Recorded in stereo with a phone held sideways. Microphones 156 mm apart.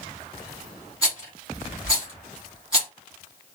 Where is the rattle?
35° right (ahead or behind), 2.0 m.